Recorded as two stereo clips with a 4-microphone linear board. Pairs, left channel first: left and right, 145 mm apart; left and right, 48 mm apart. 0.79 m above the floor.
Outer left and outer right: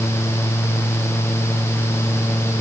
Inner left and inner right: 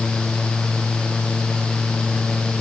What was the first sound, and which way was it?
Only background noise.